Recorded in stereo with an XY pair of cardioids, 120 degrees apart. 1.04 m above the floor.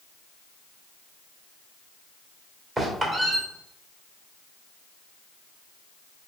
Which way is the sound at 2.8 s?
30° right.